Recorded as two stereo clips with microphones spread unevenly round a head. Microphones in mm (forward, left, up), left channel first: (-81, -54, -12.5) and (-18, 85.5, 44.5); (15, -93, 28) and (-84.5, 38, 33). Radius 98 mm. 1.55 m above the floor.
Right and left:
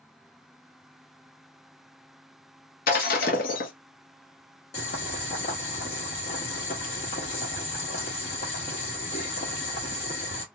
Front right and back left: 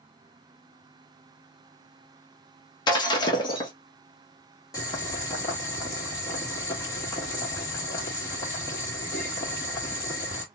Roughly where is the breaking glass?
Right.